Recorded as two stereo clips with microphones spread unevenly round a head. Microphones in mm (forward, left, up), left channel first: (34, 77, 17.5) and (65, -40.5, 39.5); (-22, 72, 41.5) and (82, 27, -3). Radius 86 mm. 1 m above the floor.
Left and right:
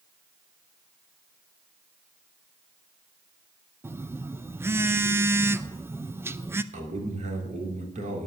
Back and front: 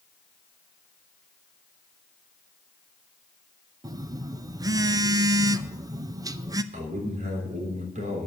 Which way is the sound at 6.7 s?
50° right.